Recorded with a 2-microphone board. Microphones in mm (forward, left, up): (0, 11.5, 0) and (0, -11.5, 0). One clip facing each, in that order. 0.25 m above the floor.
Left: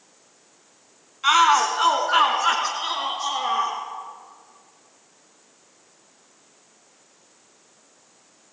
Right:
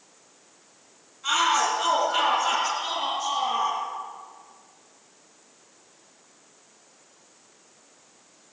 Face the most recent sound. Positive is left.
turn(degrees=40)  # may be behind; listen again after turning